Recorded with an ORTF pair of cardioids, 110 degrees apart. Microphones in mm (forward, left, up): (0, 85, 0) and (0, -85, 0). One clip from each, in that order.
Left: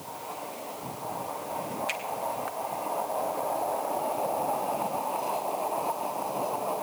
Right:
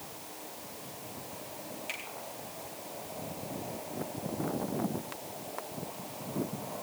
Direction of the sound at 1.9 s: 45° left.